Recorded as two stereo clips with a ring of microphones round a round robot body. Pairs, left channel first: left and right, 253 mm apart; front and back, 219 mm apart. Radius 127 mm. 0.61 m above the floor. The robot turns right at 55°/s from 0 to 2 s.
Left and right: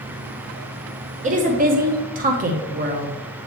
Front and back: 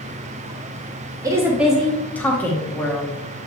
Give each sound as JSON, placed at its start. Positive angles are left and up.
{"t": 1.2, "sound": "a woman speaking", "azimuth_deg": -120, "distance_m": 1.0}